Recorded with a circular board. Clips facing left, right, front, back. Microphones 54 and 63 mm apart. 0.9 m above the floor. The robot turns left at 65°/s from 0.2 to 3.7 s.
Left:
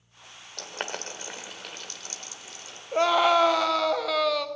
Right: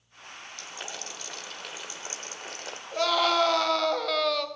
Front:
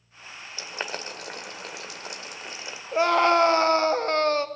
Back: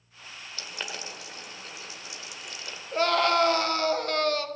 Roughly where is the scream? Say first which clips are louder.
Left 4 dB, front 4 dB; ahead left.